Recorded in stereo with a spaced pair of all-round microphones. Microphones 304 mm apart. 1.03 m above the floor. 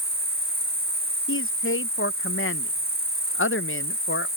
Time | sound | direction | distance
0.0 | an insect | 35° right (ahead or behind) | ?
1.3 | a man speaking | 45° left (ahead or behind) | ?